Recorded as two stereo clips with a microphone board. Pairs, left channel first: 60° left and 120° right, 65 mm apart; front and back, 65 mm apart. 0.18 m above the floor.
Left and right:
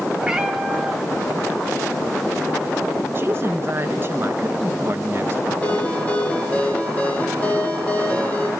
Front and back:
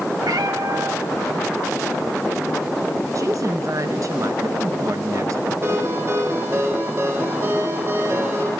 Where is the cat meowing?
160° left, 2 m.